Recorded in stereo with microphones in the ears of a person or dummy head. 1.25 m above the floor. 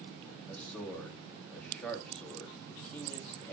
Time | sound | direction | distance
0.5 | a man speaking | 5° left (ahead or behind) | 2.5 m